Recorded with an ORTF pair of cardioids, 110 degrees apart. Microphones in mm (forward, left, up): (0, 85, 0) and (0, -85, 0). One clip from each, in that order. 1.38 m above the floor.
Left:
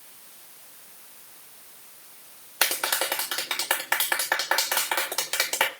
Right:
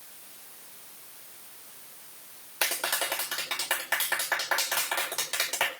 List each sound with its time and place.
2.6 s a clap: 35° left, 3.5 m